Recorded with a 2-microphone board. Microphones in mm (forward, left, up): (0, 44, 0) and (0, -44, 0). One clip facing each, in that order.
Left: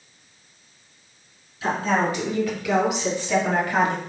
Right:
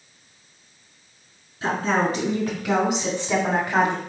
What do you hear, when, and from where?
1.6 s a woman speaking: 35° right (ahead or behind), 2.5 m; by 4.0 s 20° right (ahead or behind), 1.2 m